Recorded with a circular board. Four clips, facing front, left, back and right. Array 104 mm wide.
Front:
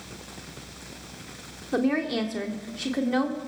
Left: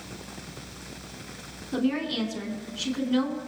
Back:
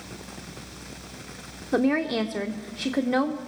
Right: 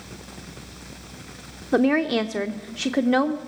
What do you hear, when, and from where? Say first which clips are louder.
1.7 s a woman speaking: right 7 dB, back 2 dB; 100° right, 1.7 m